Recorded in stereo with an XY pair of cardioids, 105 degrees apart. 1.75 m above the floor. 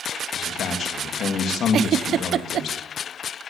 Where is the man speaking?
60° left, 3.5 m.